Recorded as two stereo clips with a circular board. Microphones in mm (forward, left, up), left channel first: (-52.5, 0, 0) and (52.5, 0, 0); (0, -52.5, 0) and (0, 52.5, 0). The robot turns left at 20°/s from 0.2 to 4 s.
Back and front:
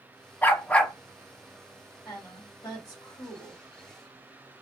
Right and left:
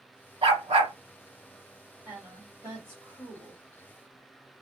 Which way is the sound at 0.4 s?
110° left.